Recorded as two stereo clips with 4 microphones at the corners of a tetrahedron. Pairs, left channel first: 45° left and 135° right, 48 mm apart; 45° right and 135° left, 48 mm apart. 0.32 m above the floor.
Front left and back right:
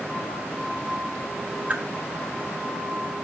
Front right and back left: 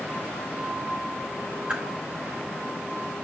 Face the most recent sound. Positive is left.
turn(degrees=-165)